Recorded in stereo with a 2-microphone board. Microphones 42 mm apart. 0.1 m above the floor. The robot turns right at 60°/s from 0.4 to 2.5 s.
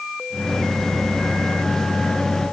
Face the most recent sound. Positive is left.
No sound to turn to.